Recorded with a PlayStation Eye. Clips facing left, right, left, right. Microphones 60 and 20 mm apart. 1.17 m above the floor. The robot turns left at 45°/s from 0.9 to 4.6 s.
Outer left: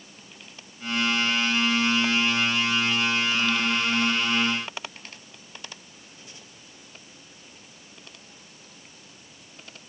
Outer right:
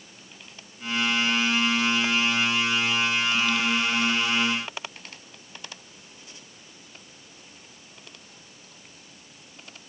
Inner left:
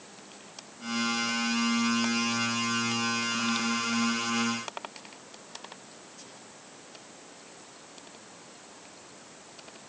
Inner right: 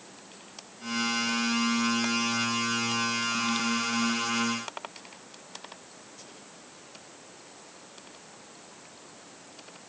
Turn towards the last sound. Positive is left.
No sound to turn to.